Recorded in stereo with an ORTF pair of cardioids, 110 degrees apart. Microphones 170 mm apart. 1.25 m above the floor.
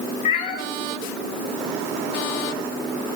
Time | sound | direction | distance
0.2 | a cat meowing | 55° left | 2.0 m